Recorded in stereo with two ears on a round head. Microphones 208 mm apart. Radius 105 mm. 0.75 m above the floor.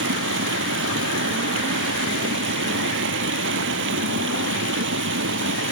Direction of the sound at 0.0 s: 55° right (ahead or behind).